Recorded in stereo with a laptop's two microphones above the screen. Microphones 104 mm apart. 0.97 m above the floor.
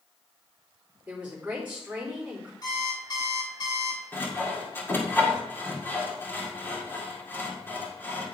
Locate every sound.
1.1 s a woman speaking: 15° right (ahead or behind), 3.5 m
2.6 s an alarm clock: 40° left (ahead or behind), 2.5 m
4.1 s sawing: 20° left (ahead or behind), 2.0 m